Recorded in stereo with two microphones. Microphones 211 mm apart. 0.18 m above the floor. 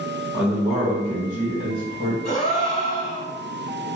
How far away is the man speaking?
About 1.9 m.